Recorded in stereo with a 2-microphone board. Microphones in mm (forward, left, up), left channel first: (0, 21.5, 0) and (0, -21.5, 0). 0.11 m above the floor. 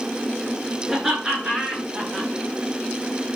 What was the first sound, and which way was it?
Laughter, centre (ahead or behind).